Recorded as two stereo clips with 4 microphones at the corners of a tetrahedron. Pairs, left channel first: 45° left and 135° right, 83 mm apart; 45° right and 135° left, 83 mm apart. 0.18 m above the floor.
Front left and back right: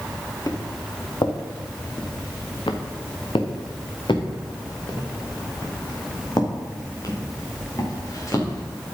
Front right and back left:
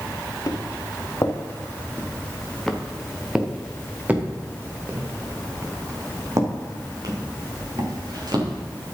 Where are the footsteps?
Straight ahead, 1.9 m; by 8.6 s 100° left, 3.5 m.